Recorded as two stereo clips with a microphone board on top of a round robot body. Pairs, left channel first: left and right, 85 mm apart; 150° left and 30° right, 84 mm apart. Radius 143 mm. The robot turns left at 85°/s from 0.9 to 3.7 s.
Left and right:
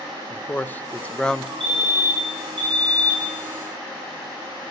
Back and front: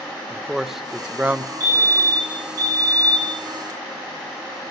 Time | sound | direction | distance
0.3 | a man speaking | 50° left | 0.6 m
1.6 | a fire alarm | 10° left | 5.5 m